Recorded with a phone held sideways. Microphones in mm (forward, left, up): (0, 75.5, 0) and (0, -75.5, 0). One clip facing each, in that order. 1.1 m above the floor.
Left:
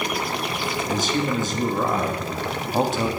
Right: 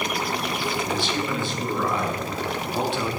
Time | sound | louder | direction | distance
0.9 | a man speaking | left 3 dB | 40° left (ahead or behind) | 1.3 m